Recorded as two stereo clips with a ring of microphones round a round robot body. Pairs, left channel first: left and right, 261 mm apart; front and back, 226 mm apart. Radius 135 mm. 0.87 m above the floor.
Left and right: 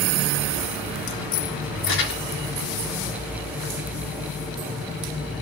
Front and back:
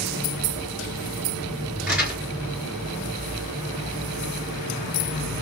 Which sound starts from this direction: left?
Crumpling, at 1.9 s.